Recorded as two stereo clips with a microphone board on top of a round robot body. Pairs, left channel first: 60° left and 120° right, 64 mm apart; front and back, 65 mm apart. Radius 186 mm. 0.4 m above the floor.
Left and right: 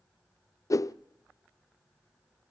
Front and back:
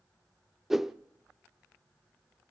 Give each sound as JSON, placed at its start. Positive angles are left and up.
{"t": 0.7, "sound": "a whoosh", "azimuth_deg": 95, "distance_m": 0.6}